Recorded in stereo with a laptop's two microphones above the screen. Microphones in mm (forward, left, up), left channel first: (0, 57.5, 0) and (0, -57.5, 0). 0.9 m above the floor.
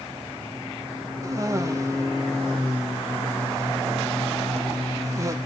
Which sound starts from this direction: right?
A cough, at 1.2 s.